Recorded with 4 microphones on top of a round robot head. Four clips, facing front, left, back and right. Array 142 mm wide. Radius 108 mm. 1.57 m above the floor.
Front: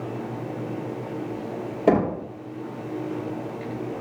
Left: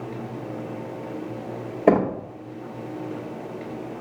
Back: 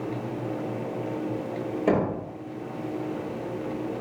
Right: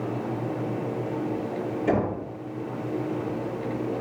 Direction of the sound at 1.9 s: 75° left.